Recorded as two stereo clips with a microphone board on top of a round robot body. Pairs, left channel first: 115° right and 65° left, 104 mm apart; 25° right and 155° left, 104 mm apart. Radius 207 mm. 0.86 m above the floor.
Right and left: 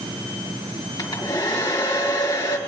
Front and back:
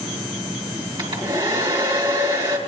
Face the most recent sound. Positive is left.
turn(degrees=-160)